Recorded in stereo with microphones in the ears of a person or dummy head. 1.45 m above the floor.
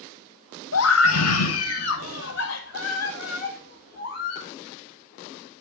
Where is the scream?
80° left, 1.7 m; by 4.5 s 55° left (ahead or behind), 3.5 m.